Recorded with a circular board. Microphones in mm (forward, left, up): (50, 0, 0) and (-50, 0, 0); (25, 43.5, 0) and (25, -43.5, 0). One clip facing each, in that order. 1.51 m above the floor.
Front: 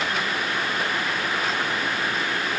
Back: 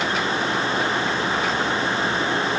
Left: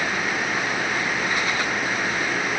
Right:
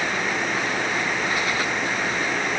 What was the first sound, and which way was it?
Only background noise.